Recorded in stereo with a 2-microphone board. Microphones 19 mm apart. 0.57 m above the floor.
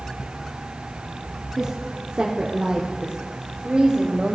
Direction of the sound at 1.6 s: 40° right (ahead or behind).